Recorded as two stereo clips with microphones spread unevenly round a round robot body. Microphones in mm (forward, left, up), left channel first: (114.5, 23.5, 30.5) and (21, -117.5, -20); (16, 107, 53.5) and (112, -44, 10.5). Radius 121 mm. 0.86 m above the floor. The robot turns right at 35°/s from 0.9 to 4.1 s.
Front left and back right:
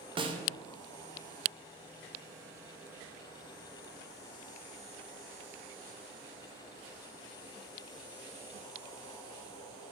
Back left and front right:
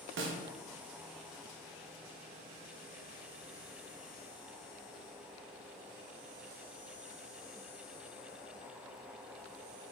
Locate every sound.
0.2 s a snare drum: 60° right, 0.5 m